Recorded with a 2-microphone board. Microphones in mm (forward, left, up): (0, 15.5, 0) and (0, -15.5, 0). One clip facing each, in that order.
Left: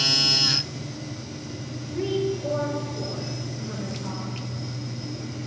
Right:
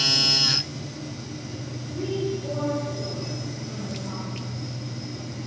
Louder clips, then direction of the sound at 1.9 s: Left 2 dB; 35° left (ahead or behind).